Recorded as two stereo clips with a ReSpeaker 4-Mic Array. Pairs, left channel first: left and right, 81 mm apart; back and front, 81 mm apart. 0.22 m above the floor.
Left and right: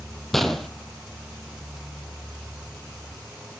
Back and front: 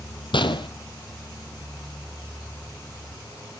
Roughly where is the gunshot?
Behind.